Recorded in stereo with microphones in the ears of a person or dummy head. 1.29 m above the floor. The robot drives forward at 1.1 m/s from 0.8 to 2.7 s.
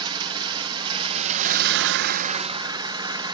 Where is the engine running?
20° right (ahead or behind), 1.3 m; by 3.4 s 25° right (ahead or behind), 1.0 m.